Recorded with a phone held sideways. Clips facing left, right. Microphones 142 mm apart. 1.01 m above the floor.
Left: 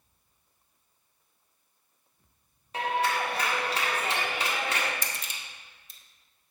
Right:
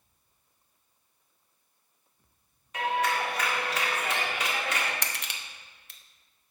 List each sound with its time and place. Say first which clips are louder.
2.7 s a clap: even; 30° left (ahead or behind), 1.5 m
5.0 s crushing: right 1 dB; 70° right (ahead or behind), 0.6 m